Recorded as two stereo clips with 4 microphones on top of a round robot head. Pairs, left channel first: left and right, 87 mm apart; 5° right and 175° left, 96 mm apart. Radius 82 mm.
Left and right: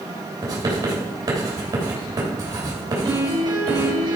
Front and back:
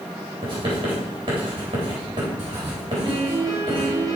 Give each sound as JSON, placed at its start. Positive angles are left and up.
{"t": 0.4, "sound": "writing", "azimuth_deg": -135, "distance_m": 4.0}
{"t": 3.0, "sound": "a piano", "azimuth_deg": -130, "distance_m": 4.0}